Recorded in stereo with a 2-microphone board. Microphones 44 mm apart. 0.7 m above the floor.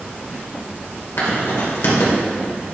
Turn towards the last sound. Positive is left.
turn(degrees=75)  # may be behind; listen again after turning